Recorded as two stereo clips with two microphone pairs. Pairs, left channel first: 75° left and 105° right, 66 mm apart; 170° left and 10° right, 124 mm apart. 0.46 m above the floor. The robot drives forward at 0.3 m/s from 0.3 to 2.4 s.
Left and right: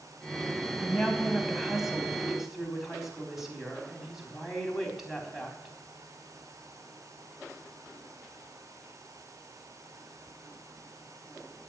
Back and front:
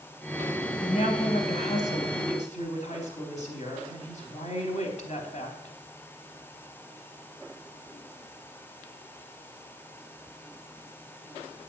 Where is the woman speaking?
165° left, 3 m; by 5.8 s 170° left, 3.5 m.